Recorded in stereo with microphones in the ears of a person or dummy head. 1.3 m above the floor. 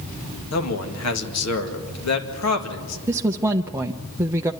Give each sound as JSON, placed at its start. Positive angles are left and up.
{"t": 0.5, "sound": "a man speaking", "side_deg": 80, "distance_m": 2.0}
{"t": 3.1, "sound": "a woman speaking", "side_deg": -15, "distance_m": 0.7}